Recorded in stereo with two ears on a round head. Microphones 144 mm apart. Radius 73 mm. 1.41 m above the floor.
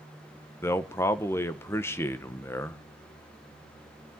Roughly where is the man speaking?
Centre.